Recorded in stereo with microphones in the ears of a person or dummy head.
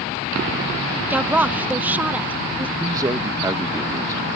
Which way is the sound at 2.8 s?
20° right (ahead or behind).